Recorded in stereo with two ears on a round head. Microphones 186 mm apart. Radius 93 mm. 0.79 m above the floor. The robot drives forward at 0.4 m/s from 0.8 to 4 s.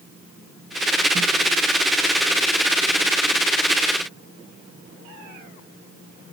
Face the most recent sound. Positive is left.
No sound to turn to.